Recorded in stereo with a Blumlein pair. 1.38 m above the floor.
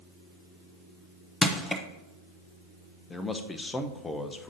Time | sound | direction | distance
1.4 | crushing | 10° left | 0.9 m
3.1 | a man speaking | 10° left | 0.8 m